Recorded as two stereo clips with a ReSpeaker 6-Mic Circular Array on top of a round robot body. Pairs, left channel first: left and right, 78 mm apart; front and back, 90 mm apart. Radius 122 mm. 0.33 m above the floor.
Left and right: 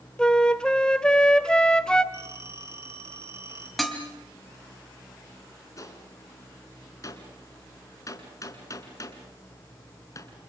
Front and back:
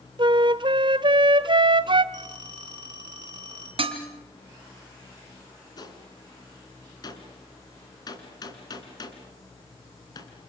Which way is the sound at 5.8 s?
45° left.